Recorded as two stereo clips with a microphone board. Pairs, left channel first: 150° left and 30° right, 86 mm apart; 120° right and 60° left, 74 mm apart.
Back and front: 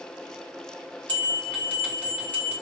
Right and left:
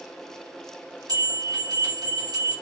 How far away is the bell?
About 1.6 m.